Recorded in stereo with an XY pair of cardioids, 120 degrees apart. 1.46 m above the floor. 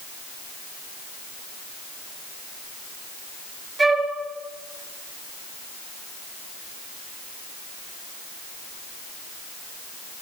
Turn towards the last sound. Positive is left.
turn(degrees=-30)